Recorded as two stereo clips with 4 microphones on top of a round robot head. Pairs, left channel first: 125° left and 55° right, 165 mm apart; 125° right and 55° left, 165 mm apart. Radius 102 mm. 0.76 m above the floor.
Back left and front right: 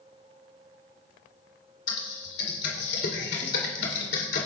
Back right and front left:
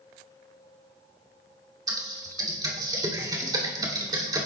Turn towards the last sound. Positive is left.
turn(degrees=120)